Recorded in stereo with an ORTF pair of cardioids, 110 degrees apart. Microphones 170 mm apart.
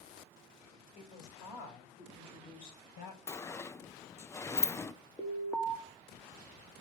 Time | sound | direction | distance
0.9 | a woman speaking | 60° left | 6 m
3.3 | a sliding door | 15° left | 0.5 m
5.2 | an alarm | 10° left | 1.7 m